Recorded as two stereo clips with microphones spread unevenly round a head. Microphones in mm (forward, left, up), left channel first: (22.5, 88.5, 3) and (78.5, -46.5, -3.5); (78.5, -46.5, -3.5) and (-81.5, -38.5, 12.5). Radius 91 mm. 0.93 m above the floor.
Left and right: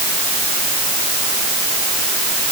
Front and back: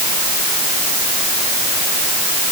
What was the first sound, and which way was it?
Only background noise.